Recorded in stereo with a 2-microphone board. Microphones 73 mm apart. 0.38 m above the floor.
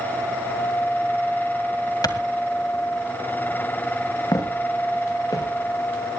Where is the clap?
60° left (ahead or behind), 1.9 m.